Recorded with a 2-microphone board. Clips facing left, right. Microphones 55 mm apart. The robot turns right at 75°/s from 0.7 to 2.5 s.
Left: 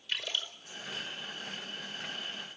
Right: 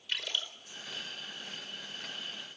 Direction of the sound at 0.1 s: 10° right (ahead or behind).